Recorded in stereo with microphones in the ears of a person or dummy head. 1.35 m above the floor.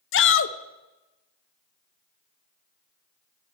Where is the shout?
60° left (ahead or behind), 0.9 m.